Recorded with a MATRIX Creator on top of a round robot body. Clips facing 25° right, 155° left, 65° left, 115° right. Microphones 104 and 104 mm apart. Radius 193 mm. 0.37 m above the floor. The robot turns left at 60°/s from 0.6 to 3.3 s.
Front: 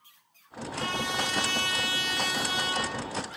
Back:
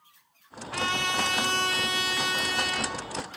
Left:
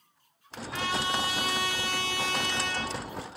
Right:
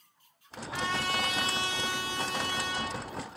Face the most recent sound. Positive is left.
turn(degrees=5)